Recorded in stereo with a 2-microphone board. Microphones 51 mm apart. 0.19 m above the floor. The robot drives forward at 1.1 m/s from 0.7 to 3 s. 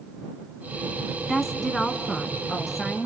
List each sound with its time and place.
1.3 s a woman speaking: 5° left (ahead or behind), 1.3 m; by 3.1 s centre (ahead or behind), 3 m